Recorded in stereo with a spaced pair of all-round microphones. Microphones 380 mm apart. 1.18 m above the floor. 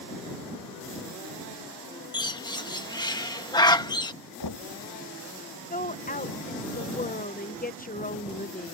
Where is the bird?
10° left (ahead or behind).